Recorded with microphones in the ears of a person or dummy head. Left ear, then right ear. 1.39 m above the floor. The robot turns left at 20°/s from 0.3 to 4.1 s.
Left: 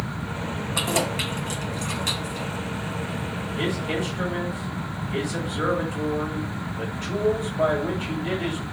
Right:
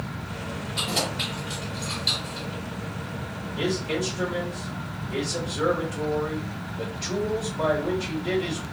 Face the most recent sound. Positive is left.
turn(degrees=15)  # may be behind; listen again after turning